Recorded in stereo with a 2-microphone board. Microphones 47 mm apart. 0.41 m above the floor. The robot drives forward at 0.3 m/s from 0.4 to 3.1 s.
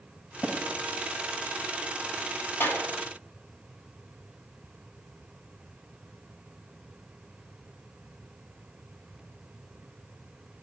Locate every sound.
0.4 s tapping: 25° left (ahead or behind), 2.5 m
2.6 s a clap: 45° left (ahead or behind), 2.5 m